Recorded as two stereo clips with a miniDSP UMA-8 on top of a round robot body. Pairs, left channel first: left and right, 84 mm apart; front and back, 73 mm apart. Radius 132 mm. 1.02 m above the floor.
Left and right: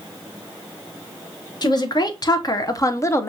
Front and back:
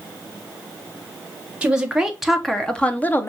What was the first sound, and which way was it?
A woman speaking, 105° left.